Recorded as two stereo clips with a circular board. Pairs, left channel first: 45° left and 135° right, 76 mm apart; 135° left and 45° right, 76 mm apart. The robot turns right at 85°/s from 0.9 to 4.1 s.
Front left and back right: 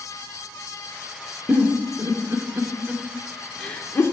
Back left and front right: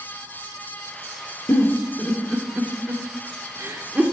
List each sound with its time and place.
1.5 s a giggle: 155° left, 1.1 m; by 4.1 s 15° left, 1.1 m